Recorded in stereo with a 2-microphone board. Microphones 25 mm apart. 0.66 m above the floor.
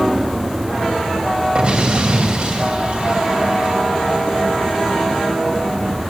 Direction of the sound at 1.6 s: 45° right (ahead or behind).